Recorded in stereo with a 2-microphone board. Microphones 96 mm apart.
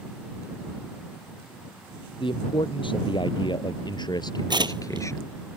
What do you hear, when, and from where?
2.2 s a man speaking: 60° left (ahead or behind); by 5.2 s 30° left (ahead or behind)
4.5 s tearing paper: 50° right (ahead or behind)